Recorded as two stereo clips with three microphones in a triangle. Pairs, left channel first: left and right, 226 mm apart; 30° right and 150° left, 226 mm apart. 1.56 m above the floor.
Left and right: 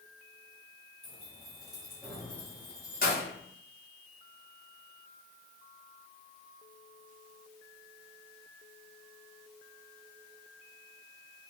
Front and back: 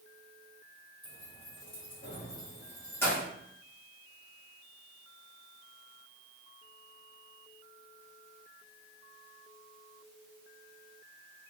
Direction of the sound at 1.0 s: 30° right.